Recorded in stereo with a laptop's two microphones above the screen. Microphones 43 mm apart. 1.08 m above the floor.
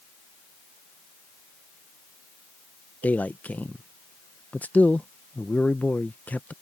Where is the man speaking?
40° left (ahead or behind).